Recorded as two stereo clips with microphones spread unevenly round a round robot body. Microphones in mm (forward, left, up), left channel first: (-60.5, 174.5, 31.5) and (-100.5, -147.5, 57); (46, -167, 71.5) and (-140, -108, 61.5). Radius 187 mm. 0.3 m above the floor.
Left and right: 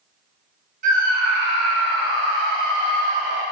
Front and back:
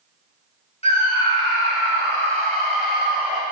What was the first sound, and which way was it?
A scream, 45° right.